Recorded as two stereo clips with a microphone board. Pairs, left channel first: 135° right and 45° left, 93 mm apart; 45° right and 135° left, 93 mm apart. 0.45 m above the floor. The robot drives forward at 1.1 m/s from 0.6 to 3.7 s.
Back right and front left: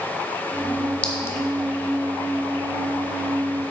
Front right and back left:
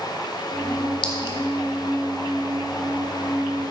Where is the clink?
60° right, 1.1 m; by 1.4 s 80° right, 0.9 m.